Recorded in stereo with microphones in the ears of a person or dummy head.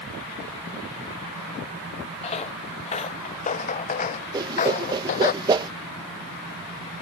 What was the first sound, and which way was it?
Footsteps, 35° left (ahead or behind).